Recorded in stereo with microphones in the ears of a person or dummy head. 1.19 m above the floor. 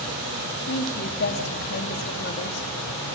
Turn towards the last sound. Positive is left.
turn(degrees=55)  # may be behind; listen again after turning